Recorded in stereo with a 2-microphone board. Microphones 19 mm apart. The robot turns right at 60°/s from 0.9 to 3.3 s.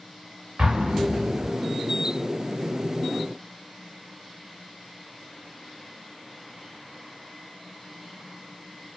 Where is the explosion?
40° right (ahead or behind), 0.9 m; by 1.5 s 50° right (ahead or behind), 0.9 m.